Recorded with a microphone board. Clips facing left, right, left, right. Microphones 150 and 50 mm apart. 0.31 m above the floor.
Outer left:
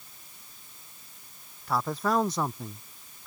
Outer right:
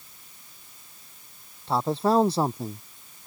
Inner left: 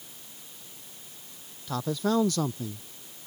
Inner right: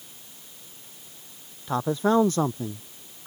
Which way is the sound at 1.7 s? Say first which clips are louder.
Outer right 5 dB, inner right 5 dB; 25° right (ahead or behind).